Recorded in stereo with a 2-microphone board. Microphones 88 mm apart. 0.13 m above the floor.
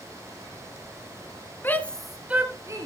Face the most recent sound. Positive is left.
turn(degrees=-40)  # may be behind; listen again after turning